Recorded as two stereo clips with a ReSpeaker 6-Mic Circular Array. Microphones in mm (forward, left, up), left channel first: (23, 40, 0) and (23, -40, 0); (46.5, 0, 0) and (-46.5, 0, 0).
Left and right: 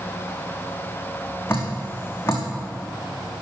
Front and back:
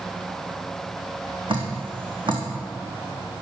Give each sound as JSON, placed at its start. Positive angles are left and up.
{"t": 1.5, "sound": "dripping", "azimuth_deg": 150, "distance_m": 3.0}